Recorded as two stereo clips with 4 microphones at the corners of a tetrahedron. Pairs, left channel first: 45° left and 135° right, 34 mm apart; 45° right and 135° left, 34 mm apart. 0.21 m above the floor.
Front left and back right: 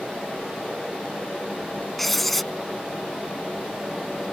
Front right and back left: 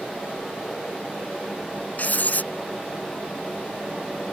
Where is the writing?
40° right.